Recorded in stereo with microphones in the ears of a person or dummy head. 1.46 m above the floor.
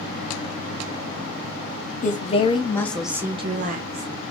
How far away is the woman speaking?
About 0.9 m.